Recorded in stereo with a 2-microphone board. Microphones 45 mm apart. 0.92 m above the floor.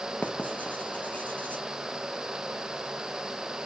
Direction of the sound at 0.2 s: 30° left (ahead or behind).